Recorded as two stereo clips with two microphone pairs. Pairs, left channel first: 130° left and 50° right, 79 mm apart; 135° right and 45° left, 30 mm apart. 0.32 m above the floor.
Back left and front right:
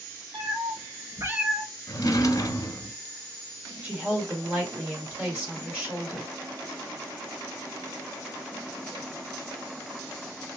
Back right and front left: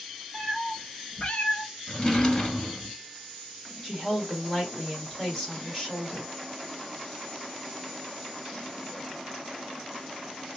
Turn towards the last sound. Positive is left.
turn(degrees=-60)